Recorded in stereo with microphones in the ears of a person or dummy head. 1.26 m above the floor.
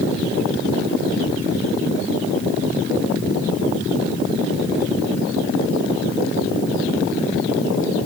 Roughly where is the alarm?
No alarm in this recording.